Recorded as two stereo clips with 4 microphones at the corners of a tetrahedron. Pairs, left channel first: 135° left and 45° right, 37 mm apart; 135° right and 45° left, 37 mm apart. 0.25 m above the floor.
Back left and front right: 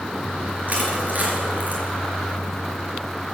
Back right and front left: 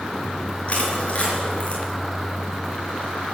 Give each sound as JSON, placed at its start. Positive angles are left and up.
{"t": 0.7, "sound": "crushing", "azimuth_deg": -85, "distance_m": 4.5}